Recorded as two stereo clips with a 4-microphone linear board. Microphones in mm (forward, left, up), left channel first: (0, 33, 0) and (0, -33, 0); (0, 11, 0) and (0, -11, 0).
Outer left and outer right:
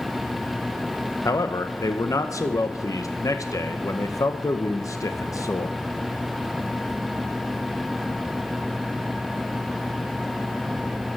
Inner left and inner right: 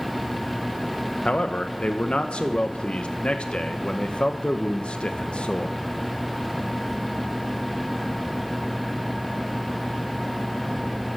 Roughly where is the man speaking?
Left.